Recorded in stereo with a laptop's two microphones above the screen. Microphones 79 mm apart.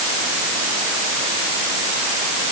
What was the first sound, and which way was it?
Only background noise.